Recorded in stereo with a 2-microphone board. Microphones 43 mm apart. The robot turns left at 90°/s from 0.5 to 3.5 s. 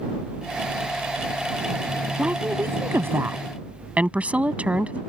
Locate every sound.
2.2 s a woman speaking: 25° right; by 5.0 s 145° right